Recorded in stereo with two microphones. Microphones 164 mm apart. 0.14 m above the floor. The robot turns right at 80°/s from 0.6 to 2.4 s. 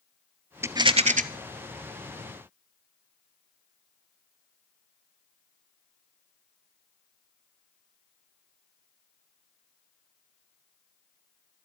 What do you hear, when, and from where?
0.6 s a rattle: 165° right, 0.7 m; by 1.2 s 115° right, 0.7 m